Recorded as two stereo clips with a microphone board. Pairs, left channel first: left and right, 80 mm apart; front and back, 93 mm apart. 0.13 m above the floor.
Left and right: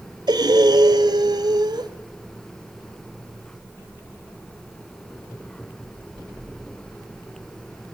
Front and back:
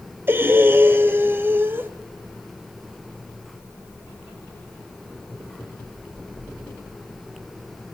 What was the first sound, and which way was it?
Breathing, 115° right.